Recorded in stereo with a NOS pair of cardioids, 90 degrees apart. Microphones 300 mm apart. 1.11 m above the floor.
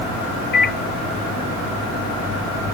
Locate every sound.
0.5 s a microwave: 35° left